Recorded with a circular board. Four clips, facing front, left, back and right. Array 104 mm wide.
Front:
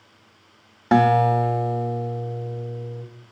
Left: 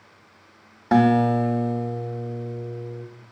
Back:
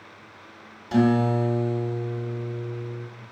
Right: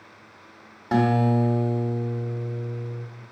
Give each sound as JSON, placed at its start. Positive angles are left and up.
{"t": 0.9, "sound": "a guitar", "azimuth_deg": 20, "distance_m": 1.7}